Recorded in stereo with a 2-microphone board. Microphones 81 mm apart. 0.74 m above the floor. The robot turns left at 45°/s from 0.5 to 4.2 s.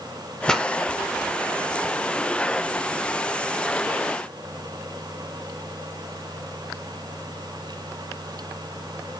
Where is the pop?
10° left (ahead or behind), 1.4 m; by 0.7 s centre (ahead or behind), 1.4 m.